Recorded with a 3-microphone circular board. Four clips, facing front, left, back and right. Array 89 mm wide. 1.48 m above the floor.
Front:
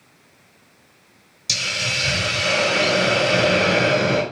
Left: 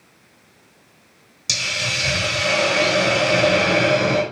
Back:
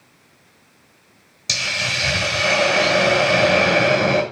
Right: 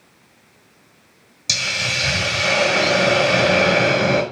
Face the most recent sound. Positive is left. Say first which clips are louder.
# right 1 dB, back 2 dB
turn(degrees=-165)